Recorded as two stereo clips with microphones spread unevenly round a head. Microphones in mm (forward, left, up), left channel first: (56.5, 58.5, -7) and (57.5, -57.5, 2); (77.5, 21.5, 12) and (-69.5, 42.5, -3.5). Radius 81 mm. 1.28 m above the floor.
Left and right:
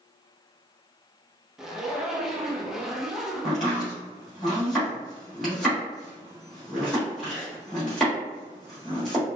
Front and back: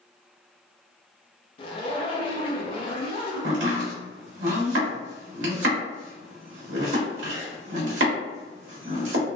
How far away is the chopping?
About 1.2 m.